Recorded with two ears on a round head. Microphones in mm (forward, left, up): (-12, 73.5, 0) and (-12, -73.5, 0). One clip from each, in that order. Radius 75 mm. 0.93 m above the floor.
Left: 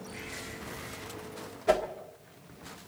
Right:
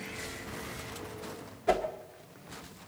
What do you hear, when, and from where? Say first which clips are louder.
1.7 s a whoosh: left 2 dB; 10° left (ahead or behind), 1.3 m